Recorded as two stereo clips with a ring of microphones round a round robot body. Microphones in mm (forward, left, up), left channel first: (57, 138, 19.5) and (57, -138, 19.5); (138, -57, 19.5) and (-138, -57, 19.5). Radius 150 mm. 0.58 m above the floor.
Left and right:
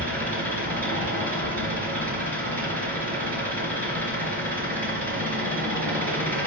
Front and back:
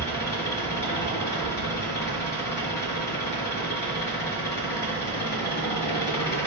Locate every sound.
0.0 s an engine running: 5° left, 3.5 m